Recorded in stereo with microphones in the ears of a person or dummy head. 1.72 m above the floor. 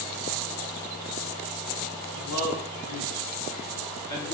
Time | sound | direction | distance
2.1 | a man speaking | 15° left (ahead or behind) | 2 m